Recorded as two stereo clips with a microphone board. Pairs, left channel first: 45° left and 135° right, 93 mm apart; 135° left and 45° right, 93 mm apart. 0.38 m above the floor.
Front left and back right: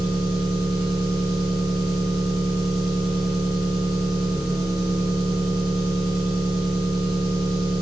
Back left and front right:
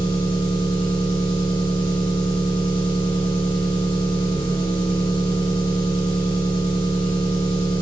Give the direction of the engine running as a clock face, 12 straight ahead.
8 o'clock.